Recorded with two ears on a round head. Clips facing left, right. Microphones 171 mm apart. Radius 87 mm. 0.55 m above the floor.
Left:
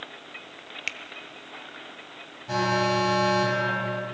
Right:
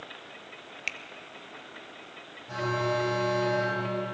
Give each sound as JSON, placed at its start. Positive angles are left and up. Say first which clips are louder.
{"t": 0.9, "sound": "a finger snap", "louder": "even", "side_deg": 0, "distance_m": 0.8}
{"t": 2.5, "sound": "an alarm", "louder": "left 4 dB", "side_deg": 75, "distance_m": 4.5}